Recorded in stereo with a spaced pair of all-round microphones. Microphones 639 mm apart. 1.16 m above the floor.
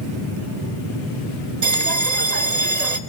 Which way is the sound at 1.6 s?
80° right.